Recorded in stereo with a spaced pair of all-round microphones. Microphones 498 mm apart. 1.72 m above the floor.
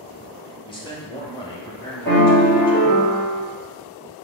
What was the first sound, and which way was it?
A man speaking, 10° left (ahead or behind).